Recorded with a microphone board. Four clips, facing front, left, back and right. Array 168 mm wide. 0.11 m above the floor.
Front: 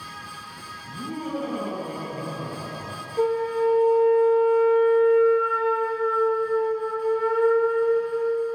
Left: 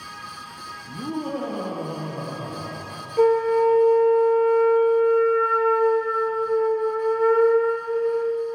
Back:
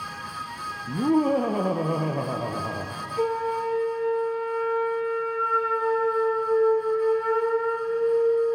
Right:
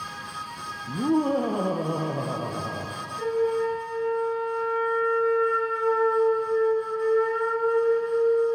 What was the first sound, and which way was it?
Laughter, 155° right.